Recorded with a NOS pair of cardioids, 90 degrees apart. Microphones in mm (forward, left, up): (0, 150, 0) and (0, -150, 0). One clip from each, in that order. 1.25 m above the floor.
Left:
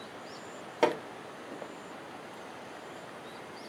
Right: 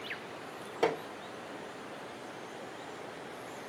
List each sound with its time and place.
0.8 s hammering: 40° left, 1.6 m